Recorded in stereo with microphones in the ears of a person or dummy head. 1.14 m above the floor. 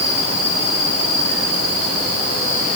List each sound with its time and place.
Only background noise.